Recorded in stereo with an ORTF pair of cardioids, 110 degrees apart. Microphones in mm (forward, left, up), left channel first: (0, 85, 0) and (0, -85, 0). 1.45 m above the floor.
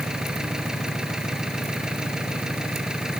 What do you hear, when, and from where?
0.0 s an engine running: 5° right